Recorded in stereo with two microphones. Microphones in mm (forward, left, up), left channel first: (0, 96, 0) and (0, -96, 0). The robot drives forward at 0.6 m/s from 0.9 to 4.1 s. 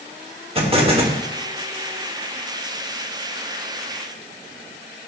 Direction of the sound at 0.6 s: 30° right (ahead or behind).